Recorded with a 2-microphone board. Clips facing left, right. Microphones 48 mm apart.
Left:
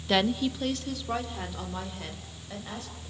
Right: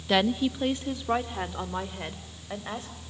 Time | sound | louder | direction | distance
0.1 | a woman speaking | right 1 dB | 5° right (ahead or behind) | 0.7 m